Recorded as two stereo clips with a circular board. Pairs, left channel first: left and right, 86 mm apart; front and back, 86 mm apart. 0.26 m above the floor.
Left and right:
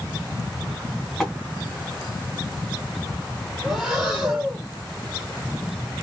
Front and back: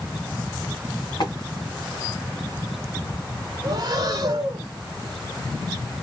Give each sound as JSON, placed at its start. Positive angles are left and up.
{"t": 1.2, "sound": "tapping", "azimuth_deg": 0, "distance_m": 1.9}
{"t": 3.6, "sound": "breathing", "azimuth_deg": -170, "distance_m": 1.2}